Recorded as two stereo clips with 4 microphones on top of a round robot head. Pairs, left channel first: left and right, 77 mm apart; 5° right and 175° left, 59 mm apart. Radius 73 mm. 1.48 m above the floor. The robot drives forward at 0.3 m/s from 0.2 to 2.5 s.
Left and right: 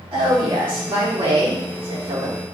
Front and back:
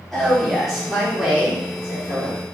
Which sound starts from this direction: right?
A woman speaking, at 0.1 s.